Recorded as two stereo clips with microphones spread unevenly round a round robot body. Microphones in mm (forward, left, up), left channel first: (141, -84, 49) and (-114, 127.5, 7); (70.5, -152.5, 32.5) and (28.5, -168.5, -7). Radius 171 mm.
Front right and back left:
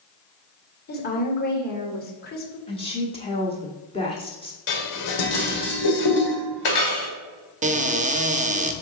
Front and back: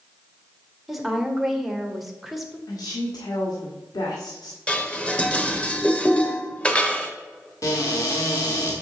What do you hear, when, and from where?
0.9 s a woman speaking: 105° right, 1.8 m
2.7 s a woman speaking: 35° left, 1.4 m
4.7 s dishes clattering: 60° right, 1.6 m
7.6 s a cupboard door: 90° left, 0.7 m